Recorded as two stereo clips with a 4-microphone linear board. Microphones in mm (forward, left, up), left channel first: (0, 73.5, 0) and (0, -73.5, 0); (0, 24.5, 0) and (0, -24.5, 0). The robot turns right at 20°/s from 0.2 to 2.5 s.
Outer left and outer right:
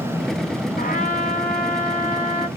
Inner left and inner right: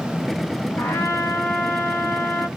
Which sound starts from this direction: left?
A trumpet, at 0.8 s.